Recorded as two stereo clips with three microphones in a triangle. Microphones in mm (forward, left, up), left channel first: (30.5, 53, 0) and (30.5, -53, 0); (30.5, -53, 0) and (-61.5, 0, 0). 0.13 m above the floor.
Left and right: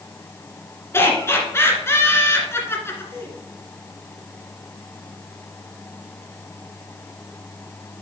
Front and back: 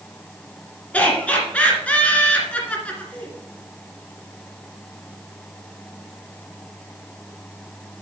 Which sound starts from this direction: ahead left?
Laughter, at 0.9 s.